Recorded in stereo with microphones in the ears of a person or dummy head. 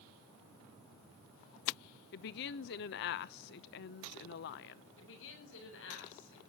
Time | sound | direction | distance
2.1 | a woman speaking | 55° left (ahead or behind) | 0.8 m
5.0 | a woman speaking | 75° left (ahead or behind) | 8 m